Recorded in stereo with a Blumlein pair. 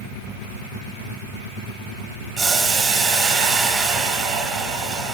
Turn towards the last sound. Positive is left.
turn(degrees=-25)